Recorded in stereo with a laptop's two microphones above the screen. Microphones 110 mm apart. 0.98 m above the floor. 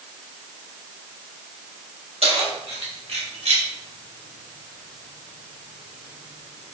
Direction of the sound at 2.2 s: 70° right (ahead or behind).